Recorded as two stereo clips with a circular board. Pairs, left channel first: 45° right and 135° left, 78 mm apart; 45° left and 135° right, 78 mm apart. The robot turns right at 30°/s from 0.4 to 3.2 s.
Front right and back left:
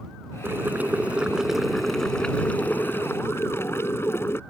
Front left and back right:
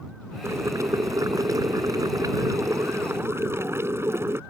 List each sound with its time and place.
0.4 s boiling: 175° right; by 4.4 s 90° right